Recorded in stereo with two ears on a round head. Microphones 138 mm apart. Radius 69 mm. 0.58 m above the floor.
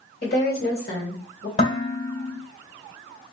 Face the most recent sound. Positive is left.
turn(degrees=45)  # may be behind; listen again after turning